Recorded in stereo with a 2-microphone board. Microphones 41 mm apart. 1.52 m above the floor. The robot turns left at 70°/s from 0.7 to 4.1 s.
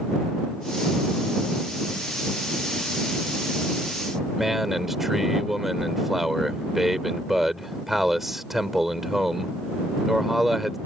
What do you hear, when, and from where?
4.4 s a man speaking: 5° right (ahead or behind)